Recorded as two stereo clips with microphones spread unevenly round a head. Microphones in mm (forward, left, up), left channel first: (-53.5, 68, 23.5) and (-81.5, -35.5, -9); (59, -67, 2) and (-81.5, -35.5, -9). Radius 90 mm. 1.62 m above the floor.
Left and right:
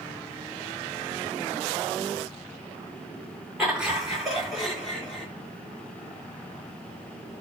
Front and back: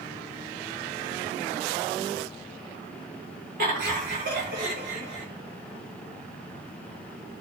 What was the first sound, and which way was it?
Laughter, 170° left.